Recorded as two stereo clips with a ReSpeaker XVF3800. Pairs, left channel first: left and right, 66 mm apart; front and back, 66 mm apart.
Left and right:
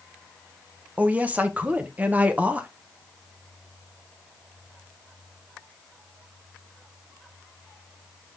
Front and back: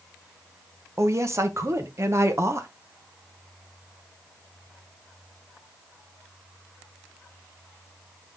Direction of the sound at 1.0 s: 150° right.